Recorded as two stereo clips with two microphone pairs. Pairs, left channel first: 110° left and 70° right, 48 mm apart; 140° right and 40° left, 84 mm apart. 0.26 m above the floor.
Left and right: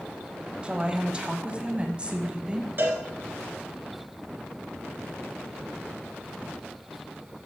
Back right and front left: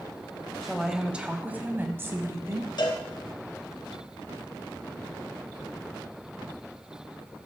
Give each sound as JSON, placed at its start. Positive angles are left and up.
{"t": 0.6, "sound": "a woman speaking", "azimuth_deg": -45, "distance_m": 1.1}
{"t": 2.8, "sound": "a cowbell", "azimuth_deg": -115, "distance_m": 2.0}